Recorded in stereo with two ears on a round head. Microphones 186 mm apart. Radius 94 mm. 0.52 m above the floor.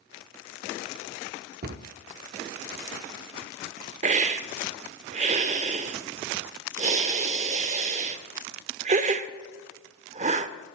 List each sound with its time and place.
1.6 s a cupboard door: 50° right (ahead or behind), 0.5 m
4.0 s a hiss: 35° right (ahead or behind), 0.5 m